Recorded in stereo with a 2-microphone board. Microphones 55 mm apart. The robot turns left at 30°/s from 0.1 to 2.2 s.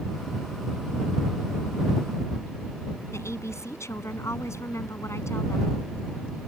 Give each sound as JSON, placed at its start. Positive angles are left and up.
{"t": 3.1, "sound": "a woman speaking", "side_deg": 60}